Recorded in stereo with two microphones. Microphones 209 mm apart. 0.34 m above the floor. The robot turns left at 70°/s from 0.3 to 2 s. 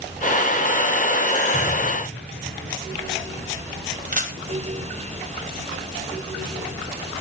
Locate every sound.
1.5 s an explosion: 145° left, 6 m; by 2.8 s 110° left, 6 m
4.1 s a camera shutter: 40° right (ahead or behind), 2 m